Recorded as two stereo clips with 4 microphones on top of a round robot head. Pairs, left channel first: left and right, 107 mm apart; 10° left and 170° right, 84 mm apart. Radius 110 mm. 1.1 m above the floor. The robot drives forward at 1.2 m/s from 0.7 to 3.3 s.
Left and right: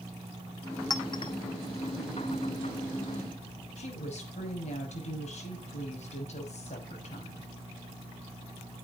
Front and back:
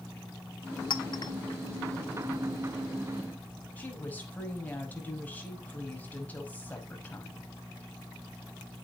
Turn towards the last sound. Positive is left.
turn(degrees=80)